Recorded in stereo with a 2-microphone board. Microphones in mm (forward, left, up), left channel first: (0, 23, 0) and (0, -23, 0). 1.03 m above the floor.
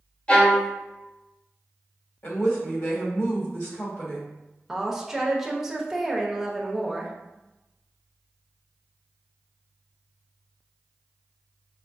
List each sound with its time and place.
0.3 s a violin: 25° left (ahead or behind), 0.8 m
2.2 s a woman speaking: 60° left (ahead or behind), 1.5 m
4.7 s a woman speaking: 5° right (ahead or behind), 0.8 m